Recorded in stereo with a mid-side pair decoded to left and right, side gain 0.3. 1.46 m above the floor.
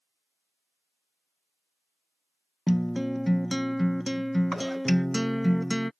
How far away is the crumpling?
I don't hear crumpling.